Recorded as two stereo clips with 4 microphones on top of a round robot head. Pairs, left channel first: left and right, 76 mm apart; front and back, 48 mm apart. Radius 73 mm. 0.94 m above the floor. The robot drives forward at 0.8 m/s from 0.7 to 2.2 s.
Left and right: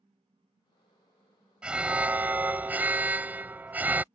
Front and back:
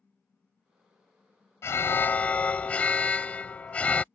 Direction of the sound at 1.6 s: 15° right.